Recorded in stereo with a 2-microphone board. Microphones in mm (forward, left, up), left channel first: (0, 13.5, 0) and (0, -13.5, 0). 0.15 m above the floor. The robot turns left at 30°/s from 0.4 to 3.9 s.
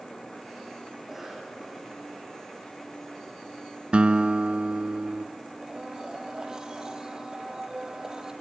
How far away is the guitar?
About 0.6 m.